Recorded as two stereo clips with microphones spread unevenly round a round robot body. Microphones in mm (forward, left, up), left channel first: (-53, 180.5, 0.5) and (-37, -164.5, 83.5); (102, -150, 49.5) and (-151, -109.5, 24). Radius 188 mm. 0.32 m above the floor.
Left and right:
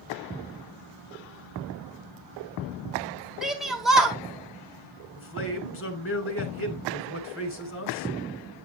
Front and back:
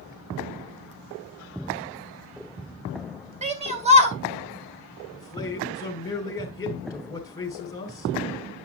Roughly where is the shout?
Behind.